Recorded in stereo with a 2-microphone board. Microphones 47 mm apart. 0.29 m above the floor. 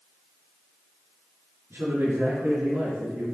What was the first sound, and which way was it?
A man speaking, 65° right (ahead or behind).